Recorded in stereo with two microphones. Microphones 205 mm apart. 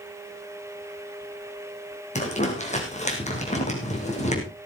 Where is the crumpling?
35° left (ahead or behind), 4 m.